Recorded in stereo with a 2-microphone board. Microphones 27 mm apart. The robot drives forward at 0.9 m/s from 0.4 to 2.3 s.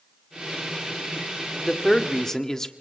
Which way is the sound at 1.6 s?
10° left (ahead or behind).